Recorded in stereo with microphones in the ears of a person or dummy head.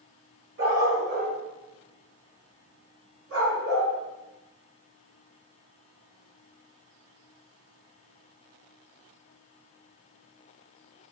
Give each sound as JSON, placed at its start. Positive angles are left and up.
{"t": 0.6, "sound": "a dog barking", "side_deg": -60, "distance_m": 2.0}